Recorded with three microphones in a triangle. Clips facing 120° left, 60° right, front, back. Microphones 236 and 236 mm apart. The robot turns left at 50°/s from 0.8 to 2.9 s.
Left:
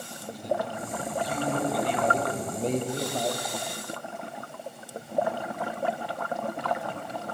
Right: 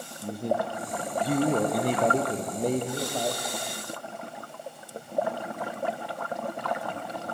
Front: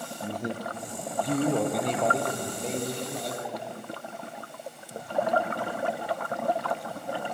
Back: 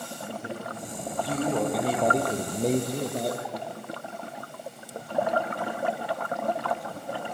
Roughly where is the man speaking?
Ahead right.